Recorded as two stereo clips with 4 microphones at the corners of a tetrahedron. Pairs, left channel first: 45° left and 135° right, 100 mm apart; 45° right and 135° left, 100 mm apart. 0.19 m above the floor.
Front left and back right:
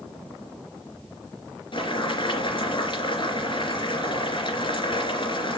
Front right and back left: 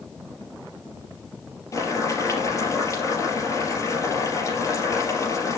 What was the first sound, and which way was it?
Boiling, 10° left.